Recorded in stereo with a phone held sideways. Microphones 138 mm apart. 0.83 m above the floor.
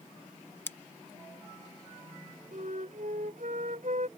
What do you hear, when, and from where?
0.7 s scissors: 15° left (ahead or behind)
2.5 s a flute: 70° right (ahead or behind)